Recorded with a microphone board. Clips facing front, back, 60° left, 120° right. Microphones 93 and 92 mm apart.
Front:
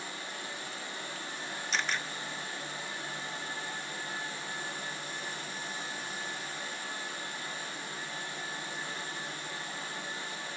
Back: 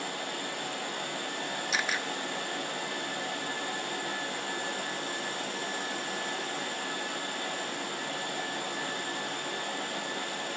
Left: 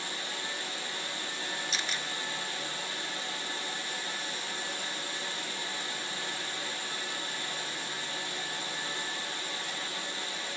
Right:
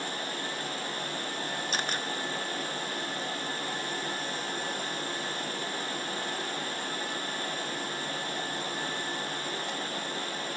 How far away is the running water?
About 2.5 m.